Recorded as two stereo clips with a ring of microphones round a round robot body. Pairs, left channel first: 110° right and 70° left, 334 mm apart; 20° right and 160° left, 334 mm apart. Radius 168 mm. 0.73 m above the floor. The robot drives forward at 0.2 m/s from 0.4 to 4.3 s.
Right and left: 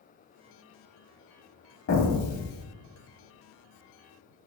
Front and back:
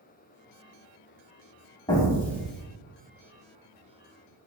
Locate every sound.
1.9 s an explosion: 95° right, 0.6 m; by 2.6 s 115° right, 0.7 m